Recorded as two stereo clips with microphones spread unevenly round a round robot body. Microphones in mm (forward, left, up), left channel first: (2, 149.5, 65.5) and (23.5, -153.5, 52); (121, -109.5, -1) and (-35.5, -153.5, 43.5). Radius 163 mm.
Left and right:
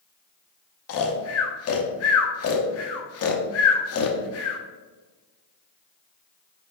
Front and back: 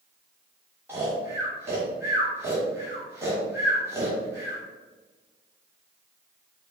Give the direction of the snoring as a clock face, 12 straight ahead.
8 o'clock.